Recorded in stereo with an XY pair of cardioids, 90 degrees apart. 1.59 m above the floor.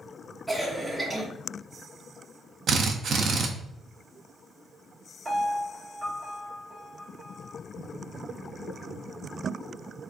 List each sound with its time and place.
0.5 s a cough: 5° right, 1.4 m
2.7 s a drill: 60° right, 0.6 m
5.2 s a piano: 40° right, 1.8 m